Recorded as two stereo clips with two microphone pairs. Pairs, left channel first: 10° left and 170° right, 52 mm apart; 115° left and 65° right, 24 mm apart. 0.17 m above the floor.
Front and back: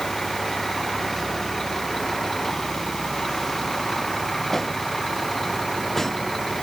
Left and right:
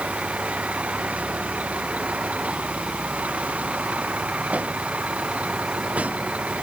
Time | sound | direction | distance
0.0 | a vehicle | 75° right | ?